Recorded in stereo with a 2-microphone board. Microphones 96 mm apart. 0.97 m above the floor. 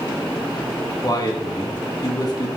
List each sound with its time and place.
1.0 s a man speaking: 40° left (ahead or behind), 1.3 m